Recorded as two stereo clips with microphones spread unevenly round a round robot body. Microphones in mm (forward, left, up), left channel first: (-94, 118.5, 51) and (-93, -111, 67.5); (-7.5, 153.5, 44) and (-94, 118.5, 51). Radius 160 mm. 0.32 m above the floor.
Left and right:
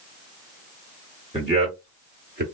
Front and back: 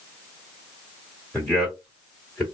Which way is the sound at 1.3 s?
55° right.